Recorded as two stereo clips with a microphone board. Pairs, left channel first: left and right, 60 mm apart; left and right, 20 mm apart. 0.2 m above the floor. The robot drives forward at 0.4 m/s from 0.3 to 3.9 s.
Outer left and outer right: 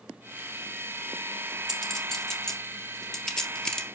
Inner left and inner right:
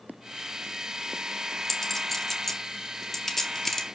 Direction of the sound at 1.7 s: 10° left (ahead or behind).